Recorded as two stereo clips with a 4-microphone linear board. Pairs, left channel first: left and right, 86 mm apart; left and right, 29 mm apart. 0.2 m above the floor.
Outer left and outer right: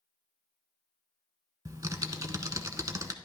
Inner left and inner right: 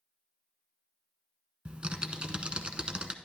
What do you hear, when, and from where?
1.6 s typing on a keyboard: 40° right (ahead or behind), 0.8 m